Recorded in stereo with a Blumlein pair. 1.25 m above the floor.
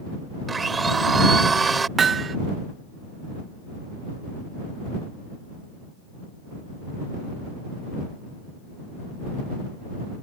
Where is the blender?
15° right.